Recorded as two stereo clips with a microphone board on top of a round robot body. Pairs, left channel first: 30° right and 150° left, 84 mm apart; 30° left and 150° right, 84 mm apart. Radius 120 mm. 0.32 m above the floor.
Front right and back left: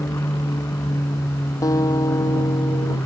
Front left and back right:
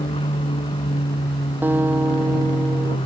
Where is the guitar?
80° right.